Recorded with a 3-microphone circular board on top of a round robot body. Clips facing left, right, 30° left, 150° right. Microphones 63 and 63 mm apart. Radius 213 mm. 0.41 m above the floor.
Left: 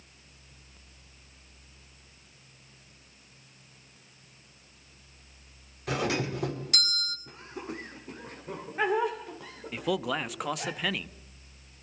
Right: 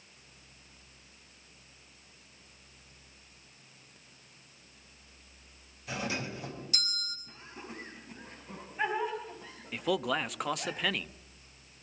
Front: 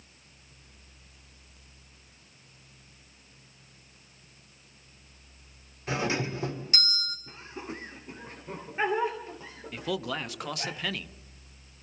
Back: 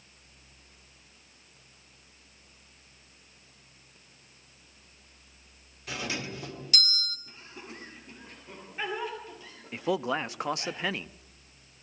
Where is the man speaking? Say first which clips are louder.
Left 1 dB, back 4 dB; straight behind, 0.8 m.